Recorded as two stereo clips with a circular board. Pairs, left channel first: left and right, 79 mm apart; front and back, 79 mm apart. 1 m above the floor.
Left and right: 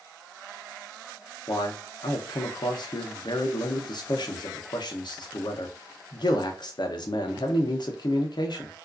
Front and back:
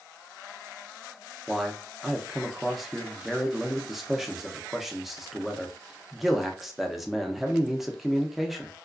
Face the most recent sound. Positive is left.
turn(degrees=90)